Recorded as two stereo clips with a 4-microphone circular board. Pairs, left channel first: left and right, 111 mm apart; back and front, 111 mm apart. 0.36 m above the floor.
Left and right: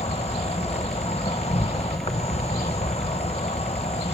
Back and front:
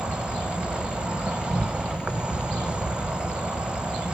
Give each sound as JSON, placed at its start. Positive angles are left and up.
{"t": 0.0, "sound": "an insect", "azimuth_deg": 80, "distance_m": 0.8}